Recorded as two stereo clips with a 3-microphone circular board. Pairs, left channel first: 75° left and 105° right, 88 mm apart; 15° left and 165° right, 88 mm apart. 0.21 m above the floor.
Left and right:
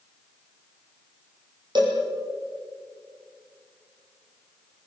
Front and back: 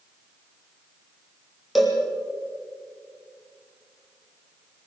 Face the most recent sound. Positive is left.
turn(degrees=-75)